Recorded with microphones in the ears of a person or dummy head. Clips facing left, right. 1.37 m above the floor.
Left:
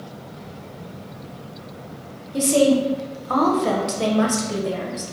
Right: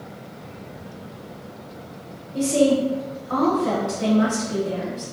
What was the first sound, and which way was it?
A woman speaking, 65° left (ahead or behind).